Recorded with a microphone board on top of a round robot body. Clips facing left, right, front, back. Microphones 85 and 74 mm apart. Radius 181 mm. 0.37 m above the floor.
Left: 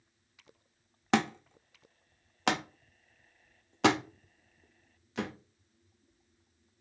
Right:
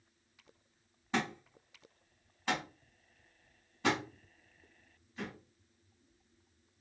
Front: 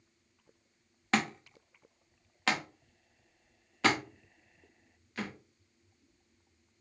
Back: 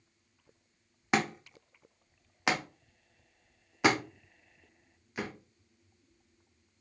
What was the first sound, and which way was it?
A thud, 105° left.